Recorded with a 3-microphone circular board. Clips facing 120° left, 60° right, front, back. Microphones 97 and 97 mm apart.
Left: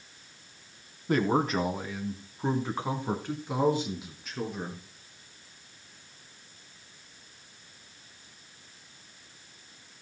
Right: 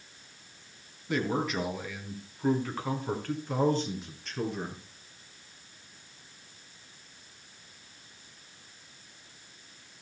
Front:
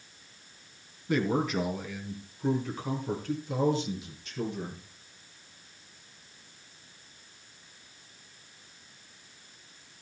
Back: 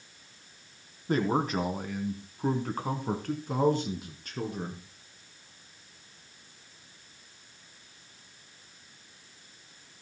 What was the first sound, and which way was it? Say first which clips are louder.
A man speaking: left 4 dB, even; 145° left.